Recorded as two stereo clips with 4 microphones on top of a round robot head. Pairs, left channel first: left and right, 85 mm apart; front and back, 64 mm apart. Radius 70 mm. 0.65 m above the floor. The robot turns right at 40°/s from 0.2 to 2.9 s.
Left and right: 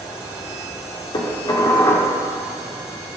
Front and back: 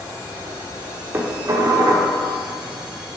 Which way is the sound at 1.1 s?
125° left.